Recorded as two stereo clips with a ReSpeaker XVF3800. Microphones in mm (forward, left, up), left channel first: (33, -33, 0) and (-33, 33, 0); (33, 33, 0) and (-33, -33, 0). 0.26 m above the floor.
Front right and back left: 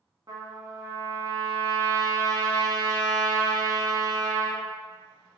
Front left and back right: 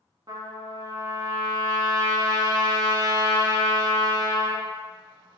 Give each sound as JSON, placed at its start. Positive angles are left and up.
{"t": 0.3, "sound": "a trumpet", "azimuth_deg": 180, "distance_m": 0.5}